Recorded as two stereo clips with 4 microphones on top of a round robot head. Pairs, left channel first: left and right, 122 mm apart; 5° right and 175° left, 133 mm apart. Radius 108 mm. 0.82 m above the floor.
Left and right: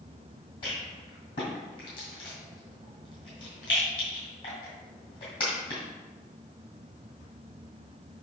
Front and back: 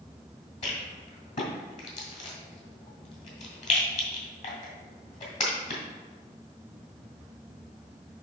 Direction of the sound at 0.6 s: 25° left.